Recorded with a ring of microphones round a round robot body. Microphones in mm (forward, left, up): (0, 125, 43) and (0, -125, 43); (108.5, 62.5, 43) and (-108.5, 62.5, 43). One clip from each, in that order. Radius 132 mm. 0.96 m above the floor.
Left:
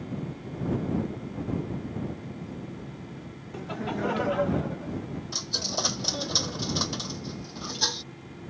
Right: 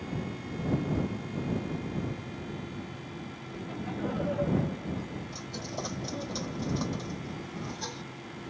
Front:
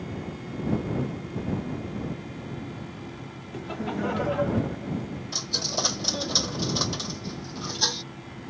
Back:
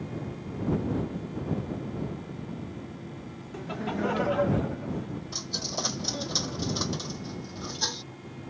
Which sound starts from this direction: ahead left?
A dropped coin, at 5.3 s.